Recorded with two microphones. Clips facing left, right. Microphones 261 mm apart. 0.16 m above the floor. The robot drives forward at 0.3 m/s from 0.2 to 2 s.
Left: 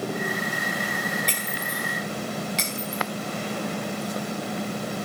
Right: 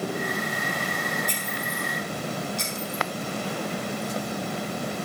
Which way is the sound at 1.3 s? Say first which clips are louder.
Even; 85° left.